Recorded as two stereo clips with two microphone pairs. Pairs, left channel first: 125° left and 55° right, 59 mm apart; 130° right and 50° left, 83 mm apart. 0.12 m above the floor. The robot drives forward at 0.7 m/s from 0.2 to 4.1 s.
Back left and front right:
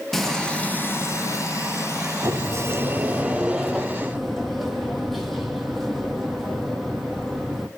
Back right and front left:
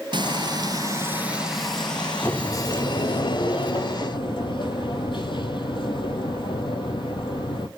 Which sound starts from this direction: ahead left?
Frying, at 0.1 s.